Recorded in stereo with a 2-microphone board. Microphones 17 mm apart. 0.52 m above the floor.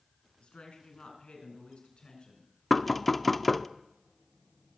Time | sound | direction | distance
0.4 | a woman speaking | 70° left (ahead or behind) | 5 m
2.7 | knocking | 15° left (ahead or behind) | 0.5 m